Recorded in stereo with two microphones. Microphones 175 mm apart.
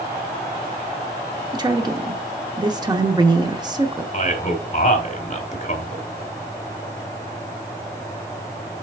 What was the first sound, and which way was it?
A woman speaking, 25° right (ahead or behind).